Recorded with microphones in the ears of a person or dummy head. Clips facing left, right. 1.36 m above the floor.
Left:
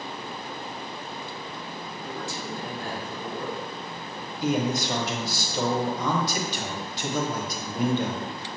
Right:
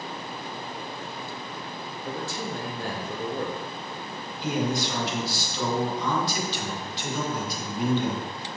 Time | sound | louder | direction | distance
2.0 | a man speaking | right 3 dB | 50° right (ahead or behind) | 0.7 m
4.4 | a man speaking | left 2 dB | 45° left (ahead or behind) | 1.0 m